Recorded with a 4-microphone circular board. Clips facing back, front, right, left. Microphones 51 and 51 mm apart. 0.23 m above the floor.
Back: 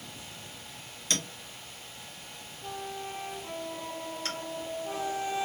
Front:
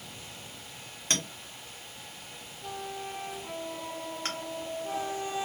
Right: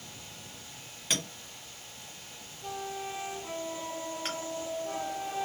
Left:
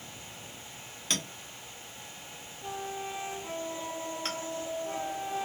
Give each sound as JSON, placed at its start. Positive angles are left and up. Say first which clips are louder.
{"t": 1.1, "sound": "a clink", "louder": "front 1 dB, right 1 dB", "azimuth_deg": -10, "distance_m": 1.0}